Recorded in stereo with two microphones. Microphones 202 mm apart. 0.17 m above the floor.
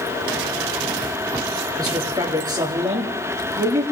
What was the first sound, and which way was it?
A man speaking, 20° right (ahead or behind).